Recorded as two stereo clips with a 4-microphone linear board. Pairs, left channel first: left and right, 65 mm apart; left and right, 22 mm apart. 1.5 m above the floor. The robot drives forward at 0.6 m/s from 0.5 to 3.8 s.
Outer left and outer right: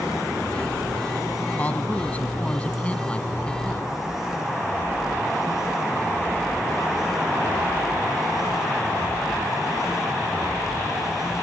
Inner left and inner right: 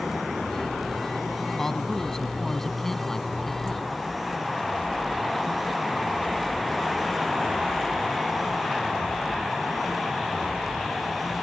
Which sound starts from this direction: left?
A man speaking, at 1.6 s.